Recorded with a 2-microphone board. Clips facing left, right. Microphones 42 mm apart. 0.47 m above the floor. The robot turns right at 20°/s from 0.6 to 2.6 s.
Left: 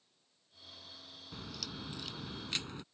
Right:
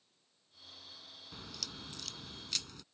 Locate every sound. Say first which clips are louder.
1.3 s a crack: left 3 dB; centre (ahead or behind); by 2.8 s 25° left (ahead or behind)